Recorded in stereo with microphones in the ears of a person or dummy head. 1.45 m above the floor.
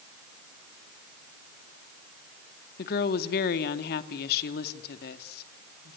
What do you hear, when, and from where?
2.8 s a woman speaking: 55° left (ahead or behind), 2.5 m